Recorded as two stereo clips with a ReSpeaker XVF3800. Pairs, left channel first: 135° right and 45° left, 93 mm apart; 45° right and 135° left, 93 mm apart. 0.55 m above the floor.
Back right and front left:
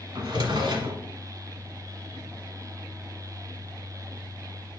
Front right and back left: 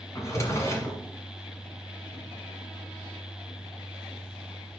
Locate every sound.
0.1 s a drawer: 10° left, 1.6 m